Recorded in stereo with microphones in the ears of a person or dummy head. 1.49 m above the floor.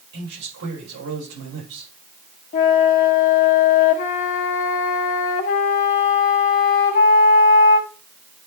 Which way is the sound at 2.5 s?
30° left (ahead or behind).